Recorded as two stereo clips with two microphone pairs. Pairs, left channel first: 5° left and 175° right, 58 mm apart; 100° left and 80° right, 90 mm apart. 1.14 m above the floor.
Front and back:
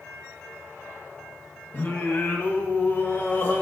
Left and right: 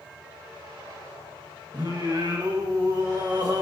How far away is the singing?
About 1.5 m.